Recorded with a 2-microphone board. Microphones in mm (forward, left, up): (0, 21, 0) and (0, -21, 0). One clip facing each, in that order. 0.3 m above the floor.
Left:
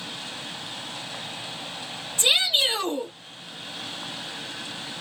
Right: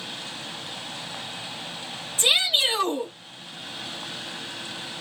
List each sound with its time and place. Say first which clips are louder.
2.2 s a shout: even; 10° right (ahead or behind), 1.0 m